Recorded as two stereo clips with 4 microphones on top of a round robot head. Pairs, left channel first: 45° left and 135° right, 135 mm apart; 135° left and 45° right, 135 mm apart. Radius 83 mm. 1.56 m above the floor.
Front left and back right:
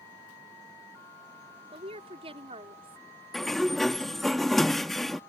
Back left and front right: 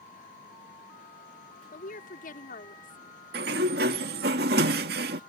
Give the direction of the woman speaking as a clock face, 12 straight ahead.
6 o'clock.